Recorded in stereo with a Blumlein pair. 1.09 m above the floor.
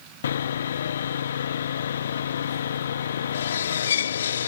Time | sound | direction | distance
0.2 | sawing | 65° left | ?